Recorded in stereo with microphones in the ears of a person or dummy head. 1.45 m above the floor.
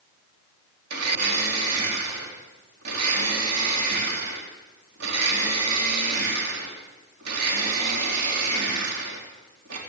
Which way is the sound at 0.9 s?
65° right (ahead or behind).